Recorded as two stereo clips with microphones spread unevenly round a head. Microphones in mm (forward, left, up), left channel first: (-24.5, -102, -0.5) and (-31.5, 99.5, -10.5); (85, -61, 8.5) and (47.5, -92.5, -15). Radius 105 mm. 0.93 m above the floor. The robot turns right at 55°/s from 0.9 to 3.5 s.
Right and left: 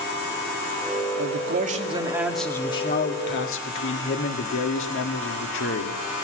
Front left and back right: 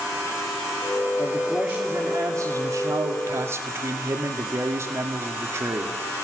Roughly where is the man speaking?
Behind left.